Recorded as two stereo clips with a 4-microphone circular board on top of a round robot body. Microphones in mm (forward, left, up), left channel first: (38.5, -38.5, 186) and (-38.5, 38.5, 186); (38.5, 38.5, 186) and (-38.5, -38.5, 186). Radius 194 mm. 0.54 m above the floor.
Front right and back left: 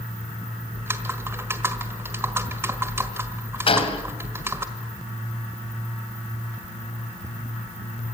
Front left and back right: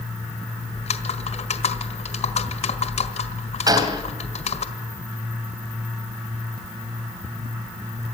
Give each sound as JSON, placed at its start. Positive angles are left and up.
{"t": 0.7, "sound": "typing on a keyboard", "azimuth_deg": 65, "distance_m": 1.6}
{"t": 3.7, "sound": "a gunshot", "azimuth_deg": -80, "distance_m": 2.5}